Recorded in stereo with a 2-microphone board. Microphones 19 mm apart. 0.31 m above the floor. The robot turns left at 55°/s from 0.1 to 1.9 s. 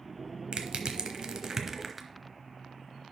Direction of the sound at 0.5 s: 60° right (ahead or behind).